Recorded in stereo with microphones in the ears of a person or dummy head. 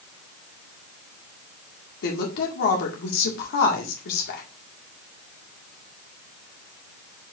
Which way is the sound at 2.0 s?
70° left (ahead or behind).